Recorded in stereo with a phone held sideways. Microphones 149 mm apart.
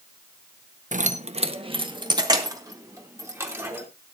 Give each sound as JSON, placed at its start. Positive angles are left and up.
{"t": 0.9, "sound": "keys jangling", "side_deg": -60, "distance_m": 1.0}